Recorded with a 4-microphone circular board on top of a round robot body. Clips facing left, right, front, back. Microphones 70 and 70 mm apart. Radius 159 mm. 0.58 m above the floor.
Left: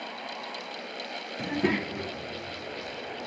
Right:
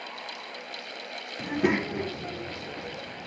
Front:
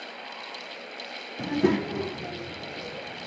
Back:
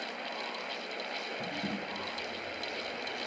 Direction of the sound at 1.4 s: 5° left.